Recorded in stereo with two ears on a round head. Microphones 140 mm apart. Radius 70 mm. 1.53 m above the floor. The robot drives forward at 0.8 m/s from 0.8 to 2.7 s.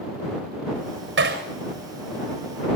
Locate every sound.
1.2 s hammering: 80° right, 6.5 m